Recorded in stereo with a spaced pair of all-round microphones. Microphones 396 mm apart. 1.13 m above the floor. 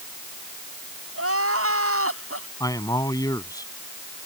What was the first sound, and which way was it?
Crying, 30° right (ahead or behind).